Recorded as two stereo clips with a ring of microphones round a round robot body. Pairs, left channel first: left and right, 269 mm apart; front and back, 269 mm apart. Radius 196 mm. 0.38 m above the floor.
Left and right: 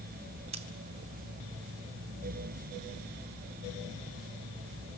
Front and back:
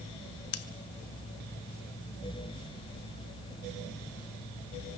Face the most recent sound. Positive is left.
turn(degrees=-20)